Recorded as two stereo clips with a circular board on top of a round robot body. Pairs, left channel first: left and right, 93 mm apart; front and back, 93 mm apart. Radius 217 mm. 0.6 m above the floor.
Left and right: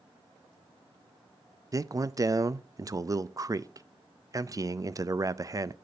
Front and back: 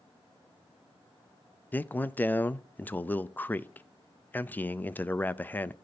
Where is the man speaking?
65° right, 0.7 m.